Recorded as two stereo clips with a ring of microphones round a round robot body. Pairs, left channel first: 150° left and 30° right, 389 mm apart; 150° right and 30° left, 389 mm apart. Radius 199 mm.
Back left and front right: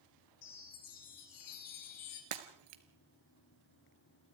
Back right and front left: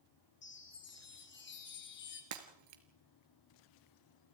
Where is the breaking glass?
15° right, 2 m.